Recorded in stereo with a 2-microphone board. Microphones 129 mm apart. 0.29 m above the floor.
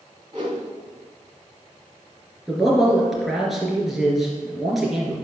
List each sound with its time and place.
0.3 s a whoosh: 40° right (ahead or behind), 3 m
2.5 s a man speaking: centre (ahead or behind), 3.5 m